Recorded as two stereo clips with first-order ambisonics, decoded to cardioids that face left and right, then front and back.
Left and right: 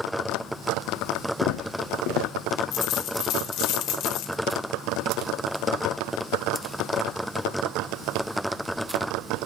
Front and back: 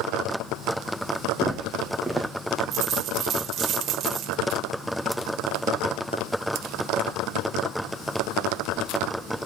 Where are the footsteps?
90° left, 2.5 m.